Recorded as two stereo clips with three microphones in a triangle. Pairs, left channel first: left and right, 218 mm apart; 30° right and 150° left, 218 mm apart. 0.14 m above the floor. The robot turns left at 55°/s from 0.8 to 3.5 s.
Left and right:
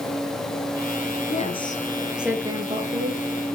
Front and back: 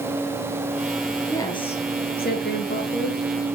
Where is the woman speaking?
45° left, 2.5 m; by 3.2 s 60° right, 2.5 m.